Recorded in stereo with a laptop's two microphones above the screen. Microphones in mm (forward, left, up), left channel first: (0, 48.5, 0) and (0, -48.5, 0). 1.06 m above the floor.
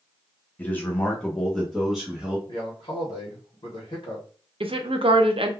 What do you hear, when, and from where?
0.6 s a man speaking: 15° left (ahead or behind), 0.9 m; by 2.4 s 5° right (ahead or behind), 1.0 m
2.5 s a man speaking: 60° left (ahead or behind), 0.9 m
4.6 s a woman speaking: 70° right (ahead or behind), 0.5 m